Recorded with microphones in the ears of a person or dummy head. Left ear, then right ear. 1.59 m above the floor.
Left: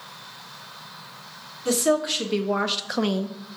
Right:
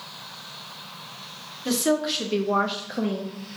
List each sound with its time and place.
1.6 s a woman speaking: 5° right (ahead or behind), 1.4 m; by 3.4 s 75° left (ahead or behind), 0.6 m